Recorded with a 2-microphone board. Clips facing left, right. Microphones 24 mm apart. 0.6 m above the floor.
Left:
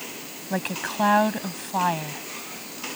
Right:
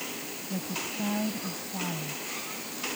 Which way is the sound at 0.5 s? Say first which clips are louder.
Left 7 dB; 65° left (ahead or behind).